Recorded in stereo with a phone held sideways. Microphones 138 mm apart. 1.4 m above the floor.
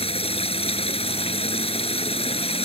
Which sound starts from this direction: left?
Running water, at 0.0 s.